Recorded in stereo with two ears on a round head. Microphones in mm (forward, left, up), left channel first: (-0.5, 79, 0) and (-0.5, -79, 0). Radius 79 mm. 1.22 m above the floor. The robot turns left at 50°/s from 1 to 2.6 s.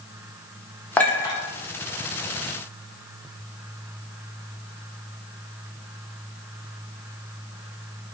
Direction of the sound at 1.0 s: 10° left (ahead or behind).